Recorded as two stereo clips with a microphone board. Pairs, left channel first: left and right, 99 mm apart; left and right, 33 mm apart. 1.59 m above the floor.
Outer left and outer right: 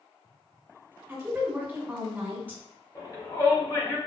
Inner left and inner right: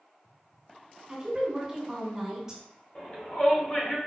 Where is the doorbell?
I don't hear a doorbell.